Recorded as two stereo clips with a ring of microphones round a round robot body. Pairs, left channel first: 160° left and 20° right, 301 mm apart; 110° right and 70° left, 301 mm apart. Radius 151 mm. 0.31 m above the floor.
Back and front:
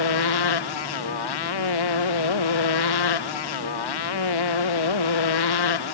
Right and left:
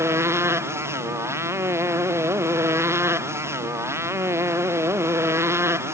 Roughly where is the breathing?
I don't hear breathing.